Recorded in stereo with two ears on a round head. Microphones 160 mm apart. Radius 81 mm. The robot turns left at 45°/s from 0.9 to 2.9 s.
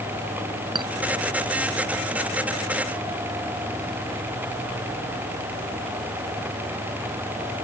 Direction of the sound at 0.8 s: 25° right (ahead or behind).